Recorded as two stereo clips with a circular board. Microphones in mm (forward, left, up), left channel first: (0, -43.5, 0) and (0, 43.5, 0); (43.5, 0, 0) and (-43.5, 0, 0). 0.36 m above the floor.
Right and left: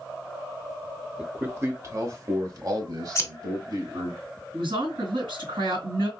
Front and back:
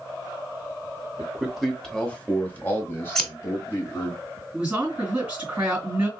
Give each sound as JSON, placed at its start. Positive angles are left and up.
{"t": 1.2, "sound": "a man speaking", "azimuth_deg": 130, "distance_m": 0.9}
{"t": 3.1, "sound": "scissors", "azimuth_deg": -80, "distance_m": 0.7}
{"t": 4.5, "sound": "a woman speaking", "azimuth_deg": 100, "distance_m": 3.0}